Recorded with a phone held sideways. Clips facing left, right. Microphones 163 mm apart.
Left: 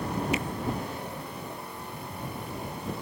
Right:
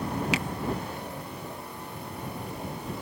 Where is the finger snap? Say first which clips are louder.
Even; 75° right (ahead or behind).